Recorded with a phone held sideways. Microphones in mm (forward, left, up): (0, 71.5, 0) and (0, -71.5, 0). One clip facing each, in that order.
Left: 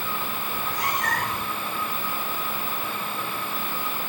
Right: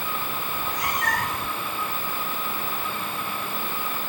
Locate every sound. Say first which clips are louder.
0.5 s a cat meowing: left 1 dB; 30° left (ahead or behind), 1.0 m